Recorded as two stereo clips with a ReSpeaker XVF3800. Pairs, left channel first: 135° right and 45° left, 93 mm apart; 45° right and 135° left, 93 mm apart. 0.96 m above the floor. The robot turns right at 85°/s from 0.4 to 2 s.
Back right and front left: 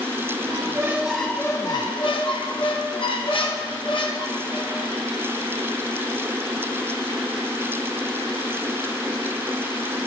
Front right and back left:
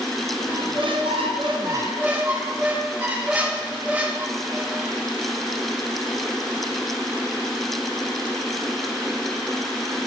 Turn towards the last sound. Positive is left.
turn(degrees=-150)